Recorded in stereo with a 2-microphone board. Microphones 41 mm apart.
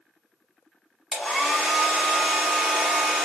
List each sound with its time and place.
1.1 s a hair dryer: 5° left (ahead or behind), 1.0 m